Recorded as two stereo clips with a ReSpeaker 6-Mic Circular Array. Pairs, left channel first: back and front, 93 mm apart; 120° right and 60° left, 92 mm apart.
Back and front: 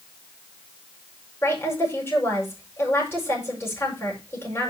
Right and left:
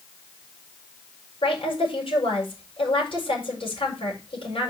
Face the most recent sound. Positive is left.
turn(degrees=-115)